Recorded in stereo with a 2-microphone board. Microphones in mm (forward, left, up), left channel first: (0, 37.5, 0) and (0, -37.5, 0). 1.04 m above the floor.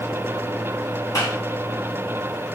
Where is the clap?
45° left (ahead or behind), 5.5 m.